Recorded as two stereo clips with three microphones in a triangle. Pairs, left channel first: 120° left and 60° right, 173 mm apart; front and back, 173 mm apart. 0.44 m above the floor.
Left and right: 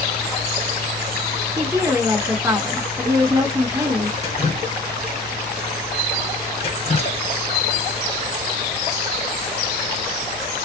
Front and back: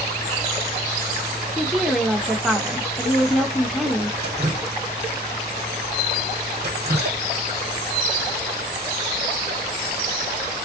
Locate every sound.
1.6 s a woman speaking: 95° right, 0.9 m
4.2 s dripping: 170° left, 1.4 m